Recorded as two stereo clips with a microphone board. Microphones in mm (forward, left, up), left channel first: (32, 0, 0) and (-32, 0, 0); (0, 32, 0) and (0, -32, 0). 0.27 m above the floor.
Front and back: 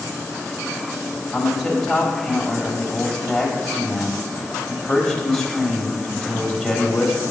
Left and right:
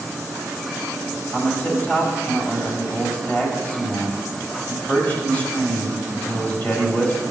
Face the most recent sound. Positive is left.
turn(degrees=80)